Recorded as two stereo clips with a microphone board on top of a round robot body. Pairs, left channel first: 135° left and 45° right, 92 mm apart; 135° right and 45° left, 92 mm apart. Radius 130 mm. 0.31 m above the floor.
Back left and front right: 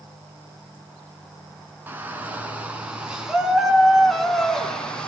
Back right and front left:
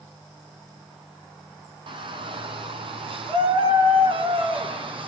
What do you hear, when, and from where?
1.9 s a shout: 25° left, 4.5 m; by 5.1 s 55° left, 4 m